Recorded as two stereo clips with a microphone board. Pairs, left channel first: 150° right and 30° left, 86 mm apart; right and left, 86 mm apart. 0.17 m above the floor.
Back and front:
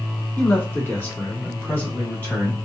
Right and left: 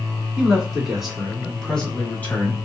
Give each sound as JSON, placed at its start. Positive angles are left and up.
{"t": 0.4, "sound": "a man speaking", "azimuth_deg": 155, "distance_m": 1.6}